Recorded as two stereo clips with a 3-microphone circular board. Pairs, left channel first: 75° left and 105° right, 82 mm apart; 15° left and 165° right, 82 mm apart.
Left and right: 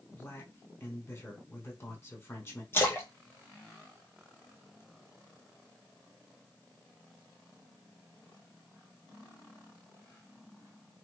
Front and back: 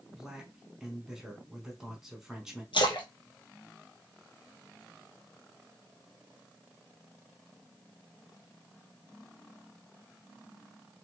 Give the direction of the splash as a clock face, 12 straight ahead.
12 o'clock.